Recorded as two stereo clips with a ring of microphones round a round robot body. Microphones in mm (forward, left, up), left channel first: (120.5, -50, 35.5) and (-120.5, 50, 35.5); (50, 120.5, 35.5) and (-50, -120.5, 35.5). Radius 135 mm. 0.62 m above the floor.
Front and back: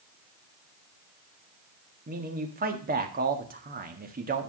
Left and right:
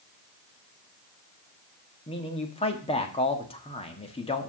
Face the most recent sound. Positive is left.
turn(degrees=125)